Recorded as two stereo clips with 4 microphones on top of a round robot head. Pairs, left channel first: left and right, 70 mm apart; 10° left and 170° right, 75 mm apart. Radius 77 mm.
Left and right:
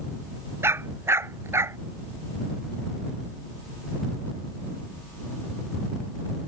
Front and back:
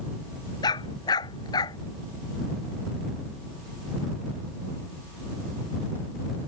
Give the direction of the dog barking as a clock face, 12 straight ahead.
1 o'clock.